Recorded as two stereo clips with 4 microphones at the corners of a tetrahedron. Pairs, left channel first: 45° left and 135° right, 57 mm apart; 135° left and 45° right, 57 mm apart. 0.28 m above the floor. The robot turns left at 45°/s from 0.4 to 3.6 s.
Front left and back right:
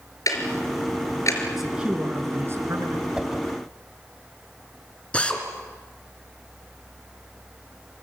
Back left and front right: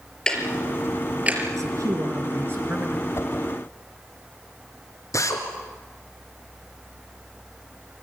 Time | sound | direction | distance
0.3 | ticking | 60° left | 4.5 m
1.6 | a man speaking | 45° right | 4.5 m
3.1 | a whoosh | 155° left | 1.8 m
5.1 | a drill | 115° left | 3.5 m